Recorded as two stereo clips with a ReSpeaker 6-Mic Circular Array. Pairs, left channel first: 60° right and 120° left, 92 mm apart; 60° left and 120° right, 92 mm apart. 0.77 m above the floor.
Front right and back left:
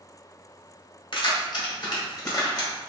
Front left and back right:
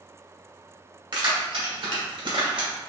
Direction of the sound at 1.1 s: 85° right.